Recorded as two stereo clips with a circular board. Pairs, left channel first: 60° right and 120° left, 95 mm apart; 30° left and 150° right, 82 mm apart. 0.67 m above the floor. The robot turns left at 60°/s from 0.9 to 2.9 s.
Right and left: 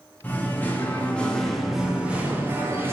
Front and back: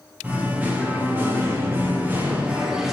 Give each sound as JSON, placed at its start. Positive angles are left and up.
{"t": 0.2, "sound": "singing", "azimuth_deg": -110, "distance_m": 0.6}